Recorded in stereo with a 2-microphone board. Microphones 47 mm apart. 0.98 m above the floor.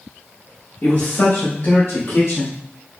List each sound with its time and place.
0.8 s a man speaking: 60° left (ahead or behind), 1.5 m; by 2.6 s 65° left (ahead or behind), 3 m